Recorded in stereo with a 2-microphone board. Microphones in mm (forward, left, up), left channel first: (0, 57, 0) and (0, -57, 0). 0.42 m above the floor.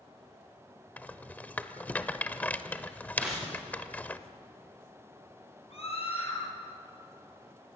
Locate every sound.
1.0 s a rattle: 15° left (ahead or behind), 1.0 m
3.2 s tearing paper: 5° right (ahead or behind), 9.5 m
5.7 s a scream: 65° left (ahead or behind), 9.5 m